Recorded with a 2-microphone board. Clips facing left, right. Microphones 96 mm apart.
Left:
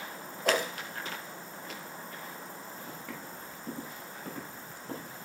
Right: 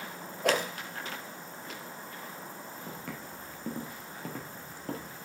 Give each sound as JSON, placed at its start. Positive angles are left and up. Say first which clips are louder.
{"t": 0.4, "sound": "a whoosh", "louder": "right 1 dB", "side_deg": -65, "distance_m": 3.5}
{"t": 2.9, "sound": "footsteps", "louder": "right 2 dB", "side_deg": -70, "distance_m": 4.5}